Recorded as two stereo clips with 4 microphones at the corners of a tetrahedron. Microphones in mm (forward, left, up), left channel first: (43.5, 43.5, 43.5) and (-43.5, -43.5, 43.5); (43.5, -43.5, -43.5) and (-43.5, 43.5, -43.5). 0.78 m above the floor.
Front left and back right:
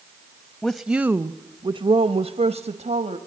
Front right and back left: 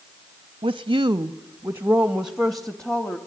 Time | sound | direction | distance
0.6 | a woman speaking | 125° left | 0.7 m